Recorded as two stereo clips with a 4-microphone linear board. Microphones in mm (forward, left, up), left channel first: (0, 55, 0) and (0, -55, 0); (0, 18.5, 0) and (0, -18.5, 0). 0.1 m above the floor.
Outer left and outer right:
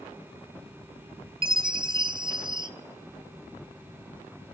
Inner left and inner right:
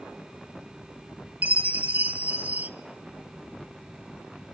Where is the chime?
45° right (ahead or behind), 0.6 m.